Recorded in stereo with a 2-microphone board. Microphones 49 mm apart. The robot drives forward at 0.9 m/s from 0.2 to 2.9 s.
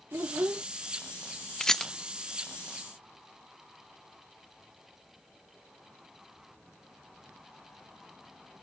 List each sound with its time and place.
0.1 s a child speaking: 55° right (ahead or behind); by 0.7 s 50° right (ahead or behind)
1.6 s a rattle: 10° left (ahead or behind)